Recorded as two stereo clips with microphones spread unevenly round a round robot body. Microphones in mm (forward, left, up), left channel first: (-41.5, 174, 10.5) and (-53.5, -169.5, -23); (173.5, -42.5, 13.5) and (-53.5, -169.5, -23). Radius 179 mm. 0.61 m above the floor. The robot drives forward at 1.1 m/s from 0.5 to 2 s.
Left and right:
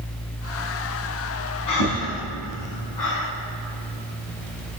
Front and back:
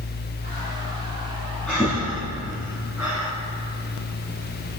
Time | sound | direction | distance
1.7 | breathing | 115° left | 3 m